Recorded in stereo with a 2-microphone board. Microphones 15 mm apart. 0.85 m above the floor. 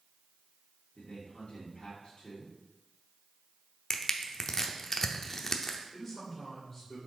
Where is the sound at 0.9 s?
75° left (ahead or behind), 2.0 m.